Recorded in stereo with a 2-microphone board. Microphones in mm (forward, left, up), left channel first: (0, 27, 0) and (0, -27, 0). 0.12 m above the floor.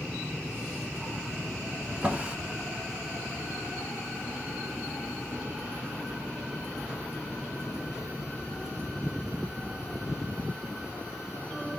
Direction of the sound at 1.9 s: 25° right (ahead or behind).